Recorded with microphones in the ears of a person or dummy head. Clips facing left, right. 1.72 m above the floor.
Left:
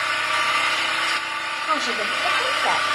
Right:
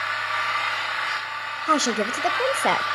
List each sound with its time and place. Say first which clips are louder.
0.0 s an engine running: left 4 dB; 35° left (ahead or behind), 1.0 m
1.7 s a woman speaking: right 5 dB; 40° right (ahead or behind), 0.8 m